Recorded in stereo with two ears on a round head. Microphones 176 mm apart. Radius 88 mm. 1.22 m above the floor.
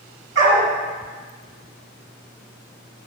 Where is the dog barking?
70° right (ahead or behind), 3 m.